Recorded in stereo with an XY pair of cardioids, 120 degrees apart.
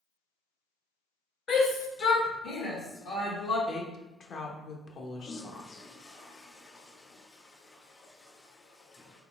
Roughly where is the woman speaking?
Ahead left.